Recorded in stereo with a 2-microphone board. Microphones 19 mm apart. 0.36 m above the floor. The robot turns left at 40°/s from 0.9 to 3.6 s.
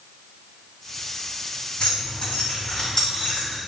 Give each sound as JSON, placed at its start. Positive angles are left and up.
{"t": 1.8, "sound": "keys jangling", "side_deg": 65, "distance_m": 2.0}